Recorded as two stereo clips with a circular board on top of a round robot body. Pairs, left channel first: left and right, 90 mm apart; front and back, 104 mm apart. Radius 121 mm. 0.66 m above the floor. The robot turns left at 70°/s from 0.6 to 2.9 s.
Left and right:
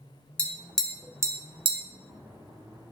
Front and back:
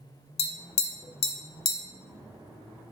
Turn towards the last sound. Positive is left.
turn(degrees=-140)